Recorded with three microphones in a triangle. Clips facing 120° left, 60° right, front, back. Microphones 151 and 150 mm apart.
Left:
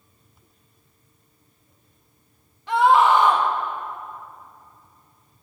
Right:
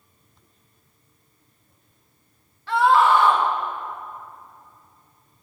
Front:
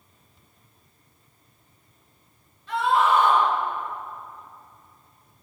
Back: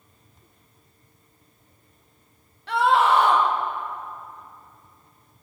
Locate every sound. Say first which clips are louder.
2.7 s a scream: left 1 dB, back 2 dB; 165° right, 1.6 m